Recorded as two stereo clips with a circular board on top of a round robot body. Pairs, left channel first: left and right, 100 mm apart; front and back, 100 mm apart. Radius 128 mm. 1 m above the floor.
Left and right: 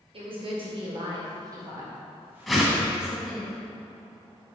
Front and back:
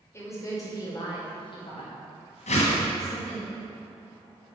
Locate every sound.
0.1 s a woman speaking: 65° right, 4.5 m; by 3.5 s straight ahead, 5 m
2.5 s a whoosh: straight ahead, 1.7 m